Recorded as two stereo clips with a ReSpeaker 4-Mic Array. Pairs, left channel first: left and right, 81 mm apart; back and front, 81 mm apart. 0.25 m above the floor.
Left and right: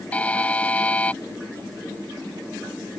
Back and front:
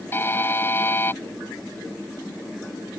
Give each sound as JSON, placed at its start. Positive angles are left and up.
{"t": 0.1, "sound": "a buzzer", "azimuth_deg": 150}